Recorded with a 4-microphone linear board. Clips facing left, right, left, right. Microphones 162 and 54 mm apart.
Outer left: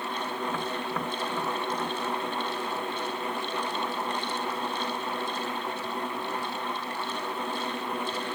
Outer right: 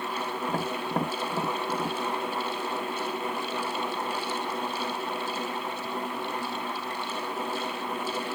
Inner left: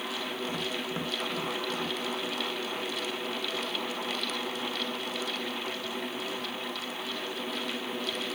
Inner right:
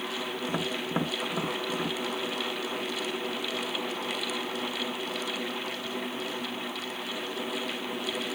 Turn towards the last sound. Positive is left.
turn(degrees=-35)  # may be behind; listen again after turning